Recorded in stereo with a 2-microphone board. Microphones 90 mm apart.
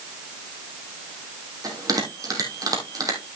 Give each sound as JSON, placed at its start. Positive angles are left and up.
{"t": 1.6, "sound": "a bell", "side_deg": -40, "distance_m": 3.0}